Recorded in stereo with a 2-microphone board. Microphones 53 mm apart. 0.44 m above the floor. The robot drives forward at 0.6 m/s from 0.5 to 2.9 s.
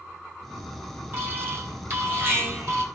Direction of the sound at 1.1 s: 45° right (ahead or behind).